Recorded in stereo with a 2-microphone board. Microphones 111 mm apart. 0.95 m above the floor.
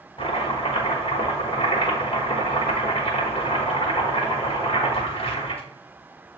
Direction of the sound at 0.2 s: 50° left (ahead or behind).